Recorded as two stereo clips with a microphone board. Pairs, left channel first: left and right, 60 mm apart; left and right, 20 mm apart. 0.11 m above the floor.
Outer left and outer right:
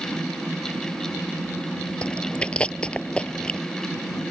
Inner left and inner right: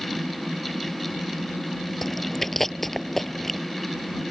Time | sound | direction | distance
2.0 | chewing | 20° left (ahead or behind) | ?